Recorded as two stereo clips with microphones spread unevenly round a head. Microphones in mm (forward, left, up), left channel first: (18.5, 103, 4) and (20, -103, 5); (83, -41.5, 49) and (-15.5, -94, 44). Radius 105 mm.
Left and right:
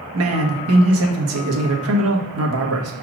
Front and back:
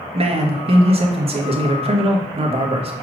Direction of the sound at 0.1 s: 115° right.